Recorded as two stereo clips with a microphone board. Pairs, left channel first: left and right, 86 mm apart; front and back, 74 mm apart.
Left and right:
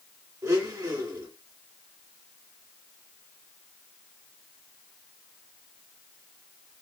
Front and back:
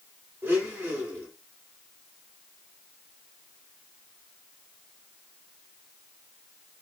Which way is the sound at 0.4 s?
125° right.